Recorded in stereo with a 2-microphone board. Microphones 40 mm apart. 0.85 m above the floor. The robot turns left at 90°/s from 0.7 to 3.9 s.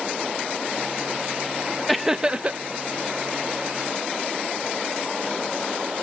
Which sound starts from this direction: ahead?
Laughter, at 1.9 s.